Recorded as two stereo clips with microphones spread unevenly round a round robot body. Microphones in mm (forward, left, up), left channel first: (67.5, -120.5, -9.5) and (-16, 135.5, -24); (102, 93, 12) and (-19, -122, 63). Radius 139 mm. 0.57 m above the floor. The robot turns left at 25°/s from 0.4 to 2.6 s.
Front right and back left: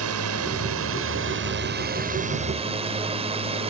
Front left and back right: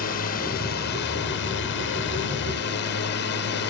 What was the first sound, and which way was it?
A drone, 100° left.